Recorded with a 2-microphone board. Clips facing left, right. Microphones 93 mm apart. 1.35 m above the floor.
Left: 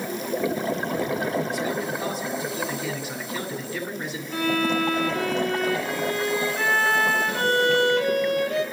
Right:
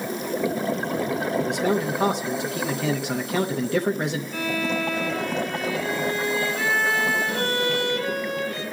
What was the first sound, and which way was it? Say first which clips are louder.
A man speaking: right 4 dB; 75° right (ahead or behind).